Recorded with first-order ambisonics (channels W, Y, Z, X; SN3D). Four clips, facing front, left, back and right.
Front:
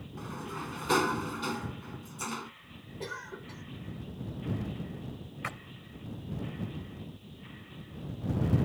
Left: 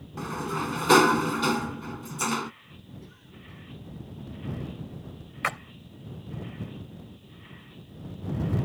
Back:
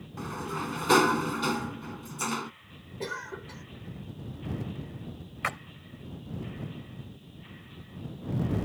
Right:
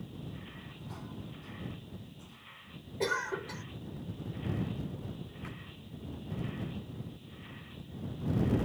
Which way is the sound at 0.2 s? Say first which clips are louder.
Left 16 dB, back 5 dB; 110° left.